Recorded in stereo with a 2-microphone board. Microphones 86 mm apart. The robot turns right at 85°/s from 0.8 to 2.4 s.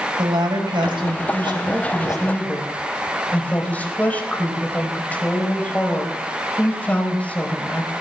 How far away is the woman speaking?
About 4.5 m.